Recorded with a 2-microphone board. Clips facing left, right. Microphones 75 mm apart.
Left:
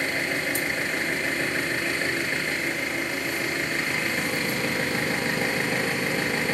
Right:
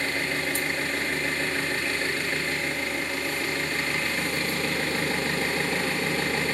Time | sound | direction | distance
0.0 | an engine running | 20° left (ahead or behind) | 1.6 m